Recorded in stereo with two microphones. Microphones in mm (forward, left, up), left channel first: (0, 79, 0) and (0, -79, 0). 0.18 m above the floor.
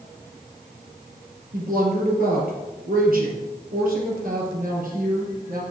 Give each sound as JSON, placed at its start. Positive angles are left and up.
{"t": 1.5, "sound": "a woman speaking", "side_deg": -65, "distance_m": 3.5}